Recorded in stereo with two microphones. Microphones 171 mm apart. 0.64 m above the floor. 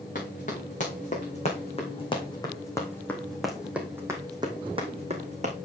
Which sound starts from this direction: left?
Running footsteps, at 0.1 s.